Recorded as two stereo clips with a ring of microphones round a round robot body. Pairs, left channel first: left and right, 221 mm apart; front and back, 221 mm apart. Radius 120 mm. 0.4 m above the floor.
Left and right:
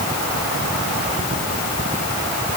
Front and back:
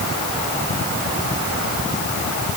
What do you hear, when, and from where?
Only background noise.